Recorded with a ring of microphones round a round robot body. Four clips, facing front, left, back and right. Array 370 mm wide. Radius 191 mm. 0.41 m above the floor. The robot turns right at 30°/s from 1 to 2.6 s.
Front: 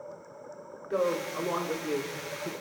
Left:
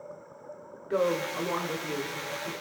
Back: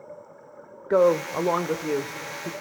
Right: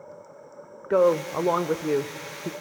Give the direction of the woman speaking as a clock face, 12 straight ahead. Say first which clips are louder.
Right 7 dB, back 9 dB; 5 o'clock.